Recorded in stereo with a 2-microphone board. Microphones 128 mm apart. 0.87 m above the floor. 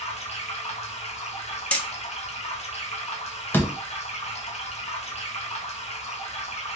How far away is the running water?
About 0.8 m.